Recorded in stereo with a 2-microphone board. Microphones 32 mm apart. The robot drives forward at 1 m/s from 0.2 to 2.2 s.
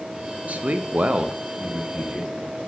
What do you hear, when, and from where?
0.5 s a man speaking: 45° right (ahead or behind), 0.7 m; by 2.6 s 20° right (ahead or behind), 1.5 m